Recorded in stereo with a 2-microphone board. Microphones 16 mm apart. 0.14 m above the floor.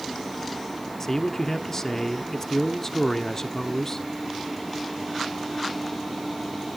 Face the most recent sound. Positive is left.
turn(degrees=20)  # may be behind; listen again after turning